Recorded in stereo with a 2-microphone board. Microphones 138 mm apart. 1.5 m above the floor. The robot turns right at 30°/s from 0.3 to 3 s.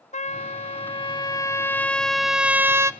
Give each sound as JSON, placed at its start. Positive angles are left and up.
{"t": 0.1, "sound": "a trumpet", "azimuth_deg": 125, "distance_m": 0.7}